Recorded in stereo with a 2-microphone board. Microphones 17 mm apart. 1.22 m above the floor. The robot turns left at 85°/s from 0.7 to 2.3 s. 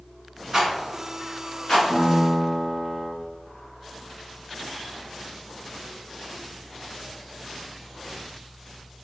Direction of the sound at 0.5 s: 30° right (ahead or behind).